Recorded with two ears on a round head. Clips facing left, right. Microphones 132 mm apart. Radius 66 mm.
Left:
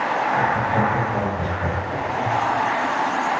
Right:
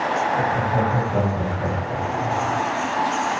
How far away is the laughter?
About 3 m.